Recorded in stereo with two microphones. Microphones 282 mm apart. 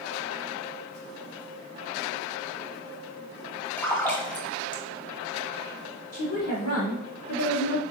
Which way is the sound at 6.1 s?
70° left (ahead or behind).